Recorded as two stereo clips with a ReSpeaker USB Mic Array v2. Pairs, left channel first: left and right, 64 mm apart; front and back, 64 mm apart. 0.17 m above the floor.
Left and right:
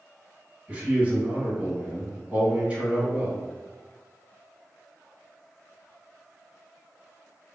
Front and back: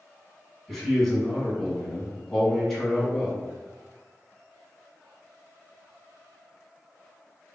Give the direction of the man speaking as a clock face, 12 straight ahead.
3 o'clock.